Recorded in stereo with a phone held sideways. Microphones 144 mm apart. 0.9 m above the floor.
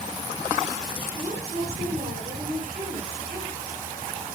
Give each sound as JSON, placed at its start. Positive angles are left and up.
{"t": 1.1, "sound": "a woman speaking", "side_deg": -55, "distance_m": 8.5}